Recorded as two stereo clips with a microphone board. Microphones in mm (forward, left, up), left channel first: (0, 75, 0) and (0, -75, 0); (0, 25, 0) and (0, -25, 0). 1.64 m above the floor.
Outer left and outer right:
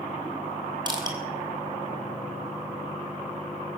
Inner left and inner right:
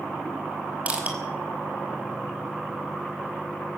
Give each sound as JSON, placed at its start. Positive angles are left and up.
{"t": 0.9, "sound": "crushing", "side_deg": -30, "distance_m": 5.0}